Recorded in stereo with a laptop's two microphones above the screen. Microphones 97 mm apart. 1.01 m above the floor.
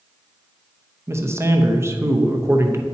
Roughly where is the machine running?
I don't hear a machine running.